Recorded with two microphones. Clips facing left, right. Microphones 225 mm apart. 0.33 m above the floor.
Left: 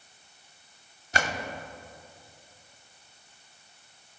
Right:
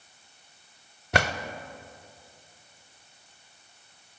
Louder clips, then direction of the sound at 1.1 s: Right 5 dB; 65° right (ahead or behind).